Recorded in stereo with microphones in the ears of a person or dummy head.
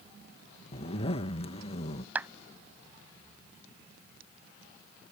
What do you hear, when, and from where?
0.7 s a zipper: 35° left (ahead or behind)
2.1 s a clap: 15° right (ahead or behind)